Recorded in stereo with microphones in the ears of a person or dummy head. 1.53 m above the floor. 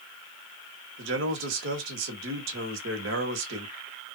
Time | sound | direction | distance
1.0 | a man speaking | 70° right (ahead or behind) | 1.5 m